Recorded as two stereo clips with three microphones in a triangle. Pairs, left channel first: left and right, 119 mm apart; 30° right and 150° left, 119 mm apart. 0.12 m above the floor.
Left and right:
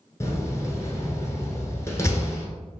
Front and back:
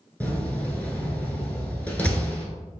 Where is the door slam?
40° left, 1.1 m.